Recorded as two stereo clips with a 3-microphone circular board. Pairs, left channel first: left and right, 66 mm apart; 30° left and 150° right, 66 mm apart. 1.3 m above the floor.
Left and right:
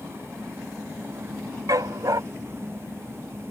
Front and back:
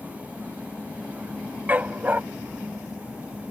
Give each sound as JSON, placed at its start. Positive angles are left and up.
{"t": 1.7, "sound": "a dog barking", "azimuth_deg": -90}